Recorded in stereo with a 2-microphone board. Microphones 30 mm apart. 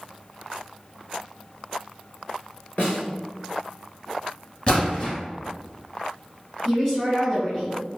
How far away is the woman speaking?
About 1.4 m.